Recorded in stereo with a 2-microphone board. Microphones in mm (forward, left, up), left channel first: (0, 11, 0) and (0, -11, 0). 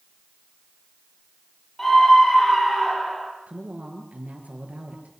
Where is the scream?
20° left (ahead or behind), 8 m.